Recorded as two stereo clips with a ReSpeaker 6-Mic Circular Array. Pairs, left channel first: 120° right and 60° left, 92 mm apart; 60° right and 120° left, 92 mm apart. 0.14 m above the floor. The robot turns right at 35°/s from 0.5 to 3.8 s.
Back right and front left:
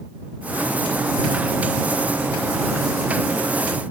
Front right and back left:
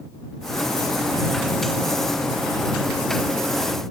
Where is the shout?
I don't hear a shout.